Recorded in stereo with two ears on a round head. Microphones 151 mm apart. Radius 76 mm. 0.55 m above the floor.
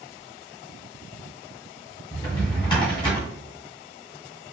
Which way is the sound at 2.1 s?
30° left (ahead or behind).